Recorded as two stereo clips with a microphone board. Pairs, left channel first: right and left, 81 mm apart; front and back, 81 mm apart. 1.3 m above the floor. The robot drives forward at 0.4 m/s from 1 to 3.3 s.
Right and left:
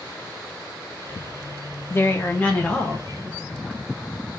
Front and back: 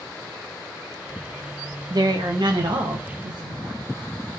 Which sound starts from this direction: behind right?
A woman speaking, at 1.9 s.